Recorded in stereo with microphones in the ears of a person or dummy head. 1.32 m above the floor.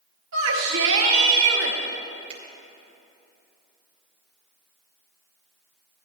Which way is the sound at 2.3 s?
40° right (ahead or behind).